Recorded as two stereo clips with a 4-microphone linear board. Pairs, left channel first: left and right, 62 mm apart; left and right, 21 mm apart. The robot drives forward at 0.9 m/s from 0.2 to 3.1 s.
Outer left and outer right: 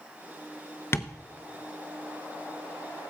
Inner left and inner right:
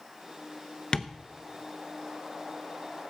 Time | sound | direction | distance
0.9 | tapping | 40° left (ahead or behind) | 0.7 m